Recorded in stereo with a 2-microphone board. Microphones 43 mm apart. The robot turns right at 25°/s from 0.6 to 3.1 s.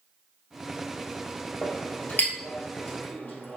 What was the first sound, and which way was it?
A clink, 50° left (ahead or behind).